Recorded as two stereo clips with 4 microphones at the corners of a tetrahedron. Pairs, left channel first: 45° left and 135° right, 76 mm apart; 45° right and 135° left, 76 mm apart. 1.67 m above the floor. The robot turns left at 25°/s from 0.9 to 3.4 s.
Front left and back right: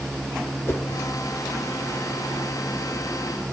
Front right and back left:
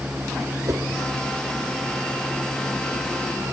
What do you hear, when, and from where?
0.7 s a whoosh: 95° left, 0.7 m